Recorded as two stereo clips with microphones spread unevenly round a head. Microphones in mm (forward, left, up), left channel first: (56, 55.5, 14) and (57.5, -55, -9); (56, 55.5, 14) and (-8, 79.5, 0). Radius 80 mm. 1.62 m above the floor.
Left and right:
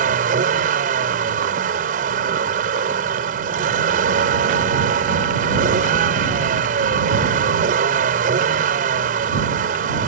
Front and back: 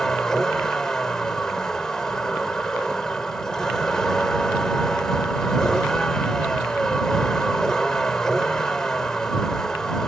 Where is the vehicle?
105° right.